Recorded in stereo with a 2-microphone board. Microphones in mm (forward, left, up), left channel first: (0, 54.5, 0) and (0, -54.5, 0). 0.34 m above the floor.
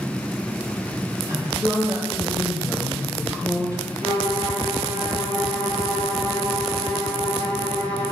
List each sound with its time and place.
1.3 s a woman speaking: 35° right (ahead or behind), 1.8 m
4.0 s a violin: 85° right, 3 m